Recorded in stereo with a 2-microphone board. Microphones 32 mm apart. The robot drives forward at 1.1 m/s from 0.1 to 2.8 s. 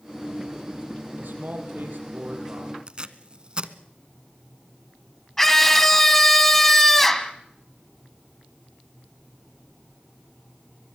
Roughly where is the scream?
Centre.